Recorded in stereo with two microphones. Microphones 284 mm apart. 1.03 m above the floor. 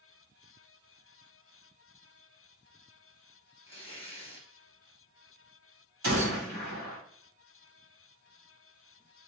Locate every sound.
3.7 s tearing paper: 20° left (ahead or behind), 1.2 m
6.0 s a gunshot: 80° right, 2 m